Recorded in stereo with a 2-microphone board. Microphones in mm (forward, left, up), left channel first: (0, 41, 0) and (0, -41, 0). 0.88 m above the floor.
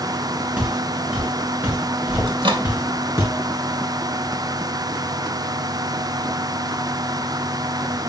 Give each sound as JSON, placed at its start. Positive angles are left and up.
{"t": 0.6, "sound": "footsteps", "side_deg": -15, "distance_m": 4.5}
{"t": 2.3, "sound": "a microwave", "side_deg": -80, "distance_m": 2.0}